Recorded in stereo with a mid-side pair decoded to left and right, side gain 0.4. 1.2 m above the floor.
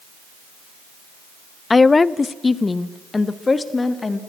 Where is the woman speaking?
30° left, 0.5 m.